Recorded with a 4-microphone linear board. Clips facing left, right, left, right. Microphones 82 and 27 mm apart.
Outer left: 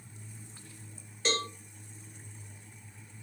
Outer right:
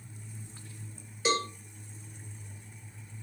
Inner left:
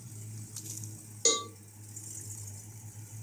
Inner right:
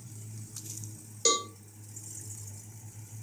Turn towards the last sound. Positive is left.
turn(degrees=-10)  # may be behind; listen again after turning